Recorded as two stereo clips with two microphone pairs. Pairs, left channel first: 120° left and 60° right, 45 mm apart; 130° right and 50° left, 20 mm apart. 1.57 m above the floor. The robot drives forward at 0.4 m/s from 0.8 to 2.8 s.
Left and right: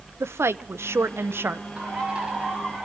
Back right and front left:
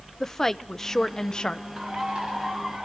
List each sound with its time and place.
0.2 s a woman speaking: 60° right, 0.7 m; by 1.7 s 95° right, 0.6 m
1.8 s a bird: 10° left, 5 m